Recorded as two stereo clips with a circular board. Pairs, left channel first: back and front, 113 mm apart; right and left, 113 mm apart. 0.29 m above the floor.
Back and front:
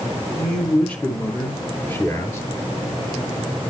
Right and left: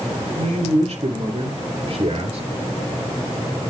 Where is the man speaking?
100° left, 3.5 m; by 2.4 s 115° left, 5 m.